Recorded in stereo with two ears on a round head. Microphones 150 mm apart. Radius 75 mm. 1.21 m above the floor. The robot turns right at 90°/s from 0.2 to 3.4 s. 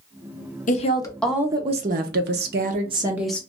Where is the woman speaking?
125° left, 0.8 m; by 3.4 s 10° left, 0.8 m.